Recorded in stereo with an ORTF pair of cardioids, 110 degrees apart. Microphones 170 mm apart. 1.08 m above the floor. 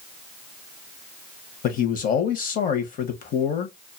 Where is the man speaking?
55° left, 0.9 m.